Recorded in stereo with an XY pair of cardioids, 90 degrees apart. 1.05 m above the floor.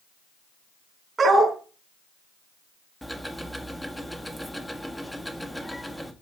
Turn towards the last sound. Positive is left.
turn(degrees=5)